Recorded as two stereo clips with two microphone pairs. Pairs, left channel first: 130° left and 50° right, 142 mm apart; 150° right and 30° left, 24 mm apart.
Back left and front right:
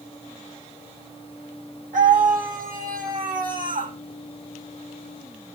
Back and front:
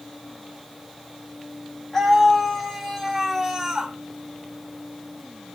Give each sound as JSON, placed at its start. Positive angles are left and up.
{"t": 1.9, "sound": "a scream", "azimuth_deg": -70, "distance_m": 5.0}